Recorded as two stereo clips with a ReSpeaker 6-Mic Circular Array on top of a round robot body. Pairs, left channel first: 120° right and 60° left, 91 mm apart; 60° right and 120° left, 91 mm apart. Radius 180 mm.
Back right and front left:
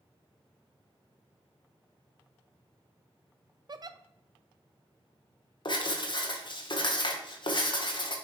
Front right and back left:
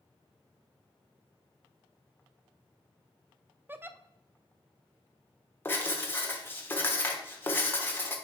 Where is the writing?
120° right, 1.4 m.